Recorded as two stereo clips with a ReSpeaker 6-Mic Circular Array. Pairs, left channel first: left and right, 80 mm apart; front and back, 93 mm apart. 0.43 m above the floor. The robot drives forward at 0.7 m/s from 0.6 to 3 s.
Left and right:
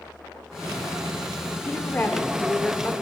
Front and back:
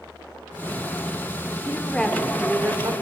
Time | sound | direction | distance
1.6 | a woman speaking | 45° left | 0.9 m